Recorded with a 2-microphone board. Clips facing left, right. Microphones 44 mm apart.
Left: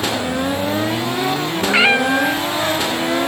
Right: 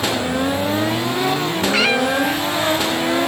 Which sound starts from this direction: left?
A cat meowing, at 1.7 s.